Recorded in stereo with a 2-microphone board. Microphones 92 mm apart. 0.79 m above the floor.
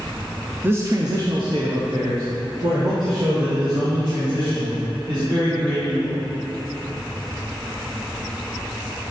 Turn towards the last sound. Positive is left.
turn(degrees=-55)  # may be behind; listen again after turning